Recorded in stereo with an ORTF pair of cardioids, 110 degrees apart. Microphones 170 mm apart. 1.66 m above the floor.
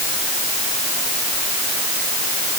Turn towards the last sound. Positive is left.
No sound to turn to.